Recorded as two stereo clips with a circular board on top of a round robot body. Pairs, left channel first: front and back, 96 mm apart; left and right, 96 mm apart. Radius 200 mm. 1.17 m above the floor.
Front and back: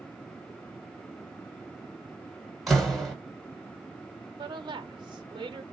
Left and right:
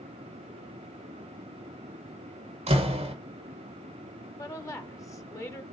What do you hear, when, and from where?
2.7 s a door slam: 90° right, 1.3 m
4.4 s a woman speaking: 145° left, 0.9 m